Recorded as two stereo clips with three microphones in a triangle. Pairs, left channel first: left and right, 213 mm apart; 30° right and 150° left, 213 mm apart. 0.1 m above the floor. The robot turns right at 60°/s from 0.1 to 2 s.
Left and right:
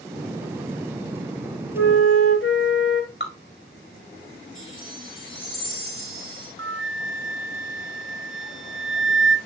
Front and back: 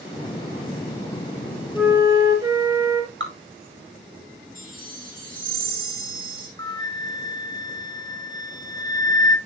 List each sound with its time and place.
1.7 s a flute: 60° left, 6 m; by 3.1 s 75° left, 6 m
3.2 s dripping: 120° left, 4.5 m
4.5 s a chime: 105° left, 6.5 m
6.6 s a flute: 100° right, 1.0 m